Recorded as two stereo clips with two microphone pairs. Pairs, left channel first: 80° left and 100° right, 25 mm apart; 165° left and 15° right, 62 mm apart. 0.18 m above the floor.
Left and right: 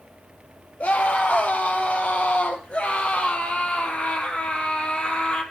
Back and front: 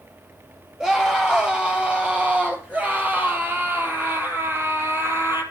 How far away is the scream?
About 4 m.